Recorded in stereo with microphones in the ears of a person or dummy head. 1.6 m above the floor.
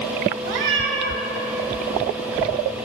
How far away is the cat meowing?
About 2 m.